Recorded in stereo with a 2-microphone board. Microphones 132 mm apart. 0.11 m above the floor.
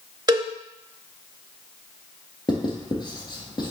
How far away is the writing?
About 1.6 m.